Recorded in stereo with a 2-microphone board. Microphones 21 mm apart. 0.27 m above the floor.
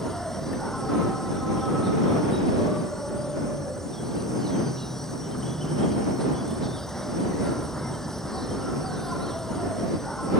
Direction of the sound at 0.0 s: 20° left (ahead or behind).